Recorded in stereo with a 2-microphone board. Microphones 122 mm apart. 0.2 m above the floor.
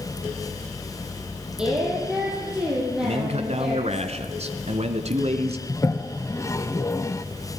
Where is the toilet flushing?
25° left (ahead or behind), 0.6 m.